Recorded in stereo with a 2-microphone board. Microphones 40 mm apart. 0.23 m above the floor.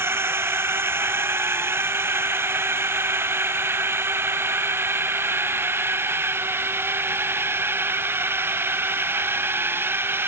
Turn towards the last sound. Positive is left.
turn(degrees=-65)  # may be behind; listen again after turning